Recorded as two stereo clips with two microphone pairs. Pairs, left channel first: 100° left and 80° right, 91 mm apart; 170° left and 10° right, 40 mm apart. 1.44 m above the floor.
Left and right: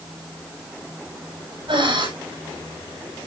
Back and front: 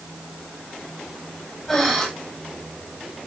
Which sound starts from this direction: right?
Breathing, at 1.7 s.